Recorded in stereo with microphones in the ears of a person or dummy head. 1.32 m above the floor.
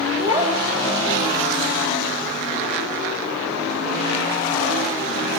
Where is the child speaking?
25° right (ahead or behind), 4 m.